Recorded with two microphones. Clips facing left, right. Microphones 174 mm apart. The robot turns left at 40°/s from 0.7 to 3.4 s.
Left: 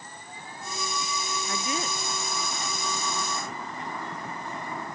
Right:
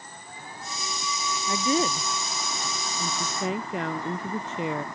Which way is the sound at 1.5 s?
20° right.